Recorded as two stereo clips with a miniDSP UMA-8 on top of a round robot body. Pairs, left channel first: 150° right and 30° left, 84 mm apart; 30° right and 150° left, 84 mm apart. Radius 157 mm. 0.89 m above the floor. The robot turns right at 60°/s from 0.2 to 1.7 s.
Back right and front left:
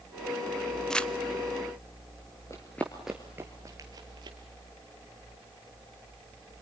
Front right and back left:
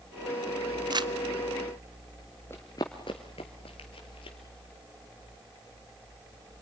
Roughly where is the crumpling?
Behind left.